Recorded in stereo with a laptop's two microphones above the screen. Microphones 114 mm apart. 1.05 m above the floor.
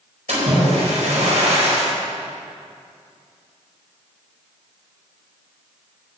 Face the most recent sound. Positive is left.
turn(degrees=-75)  # may be behind; listen again after turning